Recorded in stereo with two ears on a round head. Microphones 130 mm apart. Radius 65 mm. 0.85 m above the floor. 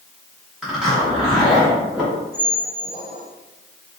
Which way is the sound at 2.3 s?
50° right (ahead or behind).